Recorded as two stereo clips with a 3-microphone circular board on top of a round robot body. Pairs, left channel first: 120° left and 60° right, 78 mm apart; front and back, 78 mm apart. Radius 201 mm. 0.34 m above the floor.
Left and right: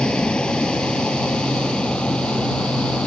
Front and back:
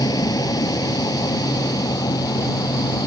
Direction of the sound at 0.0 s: 40° left.